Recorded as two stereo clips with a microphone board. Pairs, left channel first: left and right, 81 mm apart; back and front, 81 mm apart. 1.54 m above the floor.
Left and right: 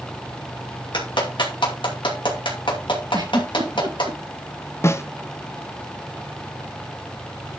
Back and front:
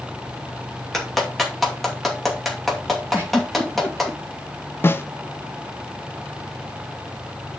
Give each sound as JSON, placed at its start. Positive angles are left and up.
{"t": 0.9, "sound": "a clap", "azimuth_deg": 90, "distance_m": 2.5}
{"t": 3.1, "sound": "a giggle", "azimuth_deg": -65, "distance_m": 5.5}
{"t": 4.8, "sound": "a snare drum", "azimuth_deg": 130, "distance_m": 0.6}